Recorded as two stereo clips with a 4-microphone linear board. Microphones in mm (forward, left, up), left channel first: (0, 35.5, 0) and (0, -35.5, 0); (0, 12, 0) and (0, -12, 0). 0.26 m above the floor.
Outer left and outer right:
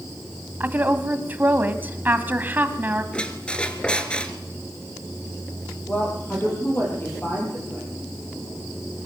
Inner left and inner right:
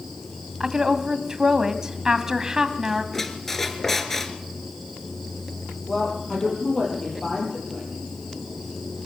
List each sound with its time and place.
0.6 s a woman speaking: 25° right (ahead or behind), 1.7 m
3.1 s a squeak: 15° left (ahead or behind), 1.9 m
5.9 s a woman speaking: 30° left (ahead or behind), 7 m